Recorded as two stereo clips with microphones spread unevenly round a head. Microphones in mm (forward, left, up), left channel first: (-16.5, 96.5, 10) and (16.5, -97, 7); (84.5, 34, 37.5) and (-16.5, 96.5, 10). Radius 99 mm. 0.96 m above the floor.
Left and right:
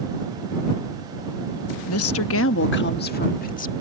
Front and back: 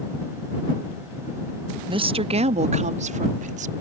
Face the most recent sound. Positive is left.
turn(degrees=150)